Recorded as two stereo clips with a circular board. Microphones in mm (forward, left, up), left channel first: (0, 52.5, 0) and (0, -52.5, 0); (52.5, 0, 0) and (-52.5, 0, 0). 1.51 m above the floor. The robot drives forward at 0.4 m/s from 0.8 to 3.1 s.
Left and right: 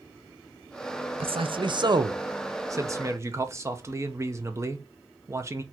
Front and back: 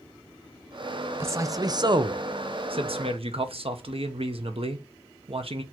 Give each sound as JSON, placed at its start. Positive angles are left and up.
{"t": 1.2, "sound": "a man speaking", "azimuth_deg": -115, "distance_m": 0.6}